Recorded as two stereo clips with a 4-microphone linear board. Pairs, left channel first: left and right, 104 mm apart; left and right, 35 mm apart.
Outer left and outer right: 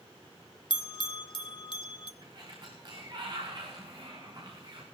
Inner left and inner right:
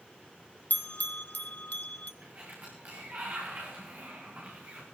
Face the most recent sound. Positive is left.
turn(degrees=-45)  # may be behind; listen again after turning